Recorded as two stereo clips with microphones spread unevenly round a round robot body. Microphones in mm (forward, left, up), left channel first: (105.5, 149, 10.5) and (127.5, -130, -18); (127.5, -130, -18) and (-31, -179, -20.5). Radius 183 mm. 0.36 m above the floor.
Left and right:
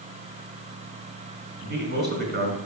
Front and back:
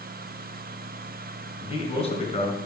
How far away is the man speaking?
About 3.5 m.